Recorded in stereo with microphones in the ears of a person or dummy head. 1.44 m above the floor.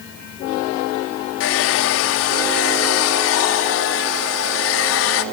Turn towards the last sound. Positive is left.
turn(degrees=75)  # may be behind; listen again after turning